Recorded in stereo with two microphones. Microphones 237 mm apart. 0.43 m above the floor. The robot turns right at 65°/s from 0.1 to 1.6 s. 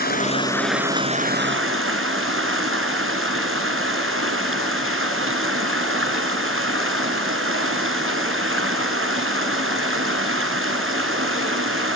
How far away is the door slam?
No door slam in this recording.